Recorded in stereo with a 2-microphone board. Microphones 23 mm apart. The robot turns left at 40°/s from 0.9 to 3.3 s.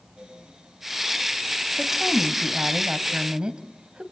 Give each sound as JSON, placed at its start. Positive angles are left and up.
{"t": 1.8, "sound": "a woman speaking", "azimuth_deg": -15, "distance_m": 1.8}